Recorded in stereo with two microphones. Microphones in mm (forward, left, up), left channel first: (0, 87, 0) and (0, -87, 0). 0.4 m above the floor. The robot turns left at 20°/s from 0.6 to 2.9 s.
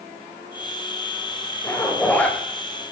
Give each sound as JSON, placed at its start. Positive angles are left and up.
{"t": 1.6, "sound": "a zipper", "side_deg": 15, "distance_m": 1.7}